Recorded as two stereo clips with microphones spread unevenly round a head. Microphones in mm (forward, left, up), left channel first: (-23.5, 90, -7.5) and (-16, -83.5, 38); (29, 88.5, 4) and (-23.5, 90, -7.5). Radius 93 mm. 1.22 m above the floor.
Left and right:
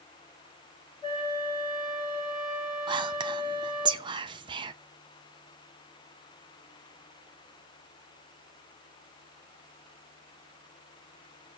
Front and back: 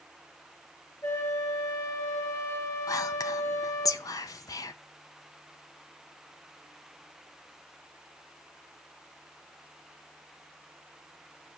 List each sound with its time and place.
1.0 s a flute: 20° left, 6.5 m
2.9 s whispering: 15° right, 0.7 m